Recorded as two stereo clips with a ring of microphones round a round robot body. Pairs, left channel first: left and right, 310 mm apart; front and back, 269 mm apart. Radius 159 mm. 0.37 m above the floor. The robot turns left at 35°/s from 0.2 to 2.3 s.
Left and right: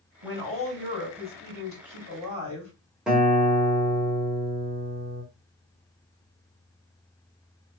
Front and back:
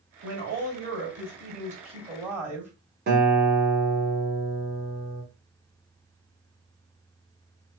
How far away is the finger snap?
I don't hear a finger snap.